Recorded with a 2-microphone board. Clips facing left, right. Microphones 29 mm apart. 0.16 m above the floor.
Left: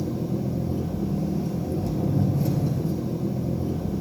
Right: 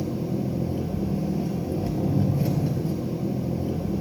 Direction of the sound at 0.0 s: 40° right (ahead or behind).